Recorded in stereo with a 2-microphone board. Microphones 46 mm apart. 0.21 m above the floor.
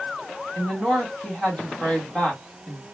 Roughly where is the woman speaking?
Left.